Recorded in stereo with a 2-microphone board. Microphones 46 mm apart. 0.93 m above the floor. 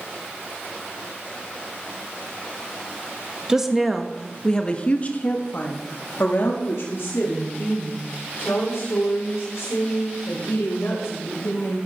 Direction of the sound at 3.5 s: 15° right (ahead or behind).